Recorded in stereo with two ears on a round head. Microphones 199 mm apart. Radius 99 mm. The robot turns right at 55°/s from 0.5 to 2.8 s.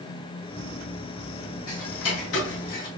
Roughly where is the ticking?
Left.